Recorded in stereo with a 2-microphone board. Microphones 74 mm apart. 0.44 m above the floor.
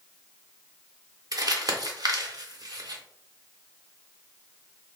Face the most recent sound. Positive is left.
turn(degrees=-60)  # may be behind; listen again after turning